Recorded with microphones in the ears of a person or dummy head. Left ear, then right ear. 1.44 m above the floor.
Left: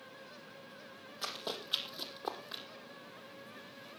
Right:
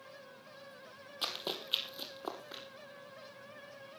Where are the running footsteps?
15° right (ahead or behind), 2.5 m; by 2.6 s 15° left (ahead or behind), 3 m.